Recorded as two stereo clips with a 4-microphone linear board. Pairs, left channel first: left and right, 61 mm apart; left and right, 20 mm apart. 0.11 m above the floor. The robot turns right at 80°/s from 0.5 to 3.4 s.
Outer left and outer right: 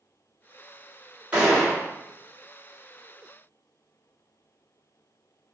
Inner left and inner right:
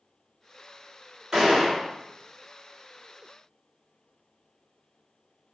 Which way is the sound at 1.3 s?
20° right.